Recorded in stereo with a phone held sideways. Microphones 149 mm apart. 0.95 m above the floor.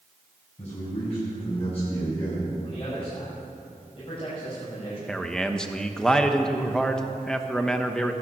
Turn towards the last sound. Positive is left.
turn(degrees=5)  # may be behind; listen again after turning